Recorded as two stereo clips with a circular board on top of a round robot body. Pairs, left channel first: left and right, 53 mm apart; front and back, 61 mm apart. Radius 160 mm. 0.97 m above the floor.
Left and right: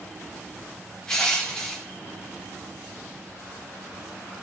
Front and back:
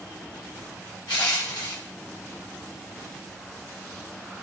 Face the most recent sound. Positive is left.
turn(degrees=15)